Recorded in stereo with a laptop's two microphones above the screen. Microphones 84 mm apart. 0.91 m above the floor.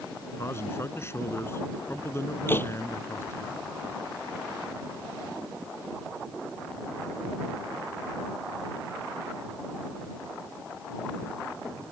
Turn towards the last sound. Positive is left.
turn(degrees=25)  # may be behind; listen again after turning